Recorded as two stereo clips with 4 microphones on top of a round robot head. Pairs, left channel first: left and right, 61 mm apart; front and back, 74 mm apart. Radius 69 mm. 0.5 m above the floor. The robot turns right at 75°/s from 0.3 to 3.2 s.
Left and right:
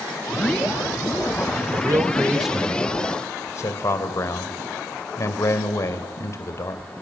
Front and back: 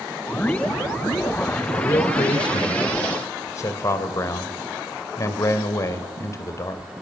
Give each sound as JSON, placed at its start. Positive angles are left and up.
{"t": 1.7, "sound": "a man speaking", "azimuth_deg": -60, "distance_m": 2.5}